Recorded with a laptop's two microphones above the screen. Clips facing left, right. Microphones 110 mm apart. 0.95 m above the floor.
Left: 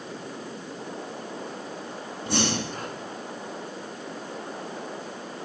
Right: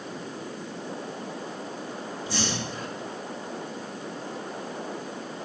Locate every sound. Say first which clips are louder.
2.3 s breathing: left 5 dB; 55° left (ahead or behind), 1.9 m